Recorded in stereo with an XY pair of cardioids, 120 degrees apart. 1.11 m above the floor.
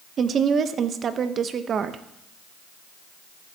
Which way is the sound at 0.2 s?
45° right.